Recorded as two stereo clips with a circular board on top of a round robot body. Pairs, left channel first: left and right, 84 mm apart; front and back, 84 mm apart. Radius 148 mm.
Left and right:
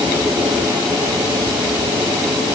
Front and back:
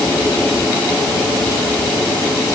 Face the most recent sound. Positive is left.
No sound to turn to.